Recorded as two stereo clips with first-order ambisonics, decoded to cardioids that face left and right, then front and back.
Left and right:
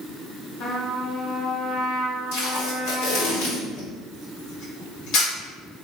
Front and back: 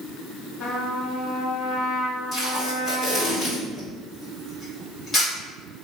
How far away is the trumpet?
About 1.9 m.